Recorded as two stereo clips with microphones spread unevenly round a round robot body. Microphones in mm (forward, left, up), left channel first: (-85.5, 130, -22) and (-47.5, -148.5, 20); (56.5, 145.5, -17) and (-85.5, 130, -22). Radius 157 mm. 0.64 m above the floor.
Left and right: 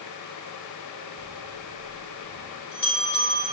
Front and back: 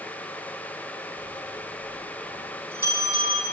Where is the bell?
15° left, 5.5 m.